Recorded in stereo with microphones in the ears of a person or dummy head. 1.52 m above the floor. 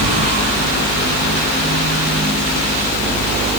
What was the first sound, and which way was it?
A fan, 50° right (ahead or behind).